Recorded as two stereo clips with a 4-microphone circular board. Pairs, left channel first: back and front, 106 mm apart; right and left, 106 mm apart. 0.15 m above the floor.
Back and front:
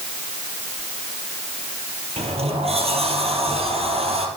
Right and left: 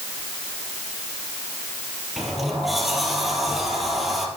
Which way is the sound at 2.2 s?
Straight ahead.